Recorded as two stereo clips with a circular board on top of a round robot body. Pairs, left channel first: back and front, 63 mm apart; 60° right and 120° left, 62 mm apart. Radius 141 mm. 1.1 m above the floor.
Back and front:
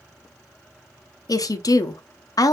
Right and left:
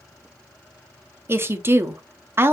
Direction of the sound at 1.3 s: 170° left.